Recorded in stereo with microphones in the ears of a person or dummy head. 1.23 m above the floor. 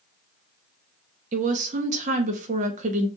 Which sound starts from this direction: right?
A woman speaking, at 1.3 s.